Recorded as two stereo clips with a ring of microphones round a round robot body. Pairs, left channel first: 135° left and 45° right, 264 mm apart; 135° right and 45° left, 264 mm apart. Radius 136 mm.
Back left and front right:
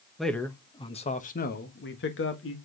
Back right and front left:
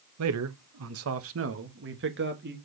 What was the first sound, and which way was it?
A man speaking, 45° left.